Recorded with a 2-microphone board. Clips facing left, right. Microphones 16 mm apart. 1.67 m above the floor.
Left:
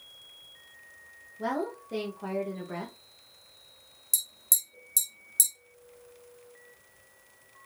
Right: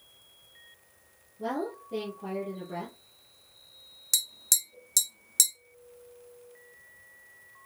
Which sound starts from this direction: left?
A woman speaking, at 1.4 s.